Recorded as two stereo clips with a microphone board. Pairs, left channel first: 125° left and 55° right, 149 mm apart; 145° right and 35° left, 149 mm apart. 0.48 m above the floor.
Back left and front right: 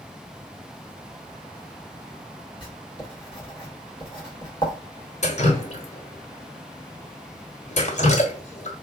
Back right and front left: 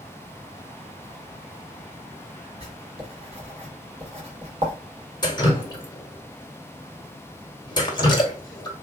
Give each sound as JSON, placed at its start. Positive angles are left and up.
{"t": 2.6, "sound": "writing", "azimuth_deg": 75, "distance_m": 1.7}
{"t": 5.2, "sound": "dripping", "azimuth_deg": 155, "distance_m": 1.1}